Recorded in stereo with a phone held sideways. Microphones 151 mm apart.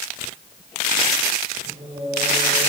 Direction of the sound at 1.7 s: 35° right (ahead or behind).